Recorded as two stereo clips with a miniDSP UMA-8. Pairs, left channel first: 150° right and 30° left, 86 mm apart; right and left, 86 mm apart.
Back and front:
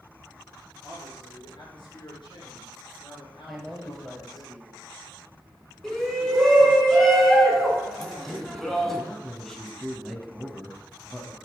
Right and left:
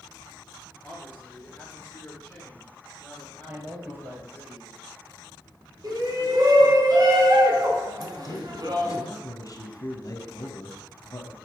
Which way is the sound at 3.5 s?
125° left.